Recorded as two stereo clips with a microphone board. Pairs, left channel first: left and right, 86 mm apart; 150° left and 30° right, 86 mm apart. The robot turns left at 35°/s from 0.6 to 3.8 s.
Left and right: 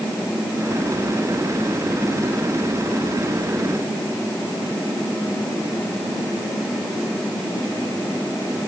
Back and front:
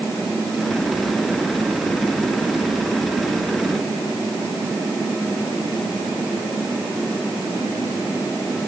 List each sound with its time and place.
Only background noise.